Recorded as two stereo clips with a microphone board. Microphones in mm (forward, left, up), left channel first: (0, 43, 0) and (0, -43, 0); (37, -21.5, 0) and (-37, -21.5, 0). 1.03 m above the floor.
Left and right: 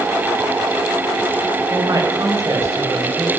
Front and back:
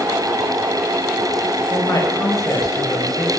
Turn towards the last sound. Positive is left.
turn(degrees=-30)